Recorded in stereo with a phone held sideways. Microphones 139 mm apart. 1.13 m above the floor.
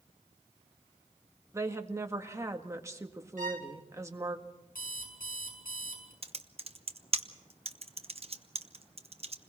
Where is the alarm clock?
80° left, 6 m.